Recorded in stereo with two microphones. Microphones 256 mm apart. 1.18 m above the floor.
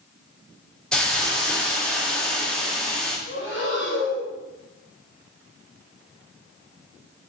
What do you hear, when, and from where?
0.9 s a hiss: 5° left (ahead or behind), 0.5 m
3.3 s breathing: 45° left (ahead or behind), 0.7 m